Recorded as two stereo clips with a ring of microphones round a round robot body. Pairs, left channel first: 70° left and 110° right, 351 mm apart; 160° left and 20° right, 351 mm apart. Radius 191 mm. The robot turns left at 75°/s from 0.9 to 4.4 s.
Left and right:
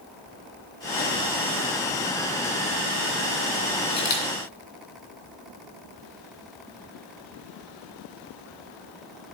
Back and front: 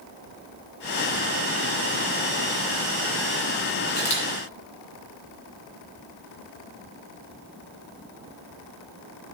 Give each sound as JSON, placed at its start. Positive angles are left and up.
{"t": 3.9, "sound": "a camera shutter", "azimuth_deg": 140, "distance_m": 2.5}